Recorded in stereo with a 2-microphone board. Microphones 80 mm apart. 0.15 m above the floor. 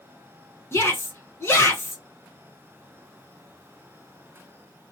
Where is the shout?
35° left (ahead or behind), 1.2 m.